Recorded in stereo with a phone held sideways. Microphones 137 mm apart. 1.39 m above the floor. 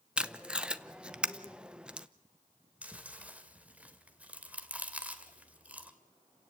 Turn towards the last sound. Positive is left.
turn(degrees=-10)  # may be behind; listen again after turning